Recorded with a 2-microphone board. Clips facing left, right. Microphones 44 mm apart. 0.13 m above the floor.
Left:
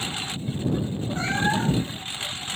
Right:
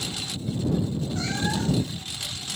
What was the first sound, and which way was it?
A lawn mower, 30° left (ahead or behind).